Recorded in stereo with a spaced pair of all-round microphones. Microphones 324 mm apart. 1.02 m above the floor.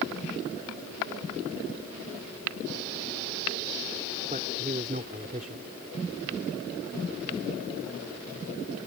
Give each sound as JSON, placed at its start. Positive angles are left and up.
{"t": 4.3, "sound": "a man speaking", "side_deg": -25}